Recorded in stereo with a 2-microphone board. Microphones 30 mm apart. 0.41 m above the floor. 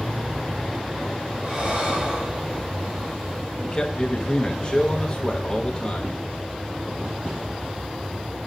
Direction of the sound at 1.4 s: 35° right (ahead or behind).